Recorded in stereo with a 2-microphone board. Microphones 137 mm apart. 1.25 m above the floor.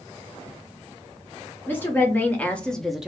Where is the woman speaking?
15° left (ahead or behind), 1.4 m; by 3.1 s 5° right (ahead or behind), 0.5 m.